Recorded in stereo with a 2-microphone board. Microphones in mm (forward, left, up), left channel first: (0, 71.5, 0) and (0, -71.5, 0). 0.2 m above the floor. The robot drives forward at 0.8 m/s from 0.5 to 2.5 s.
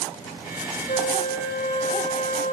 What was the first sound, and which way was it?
A flute, 50° left (ahead or behind).